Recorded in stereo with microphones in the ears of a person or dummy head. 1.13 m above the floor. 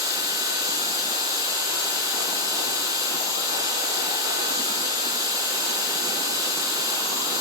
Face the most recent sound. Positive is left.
turn(degrees=-15)  # may be behind; listen again after turning